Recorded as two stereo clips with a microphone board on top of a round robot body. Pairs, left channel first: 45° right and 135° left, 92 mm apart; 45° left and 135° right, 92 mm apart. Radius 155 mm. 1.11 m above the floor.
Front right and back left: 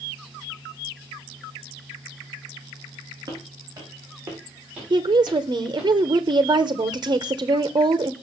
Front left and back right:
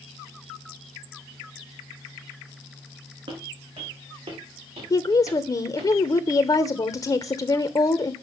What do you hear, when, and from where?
3.3 s footsteps: 170° right, 5 m; by 5.9 s 130° right, 5 m
4.9 s a woman speaking: 90° left, 1.1 m